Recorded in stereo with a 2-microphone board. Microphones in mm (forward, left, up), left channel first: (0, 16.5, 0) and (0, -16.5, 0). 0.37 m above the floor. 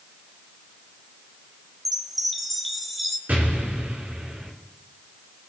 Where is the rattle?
I don't hear a rattle.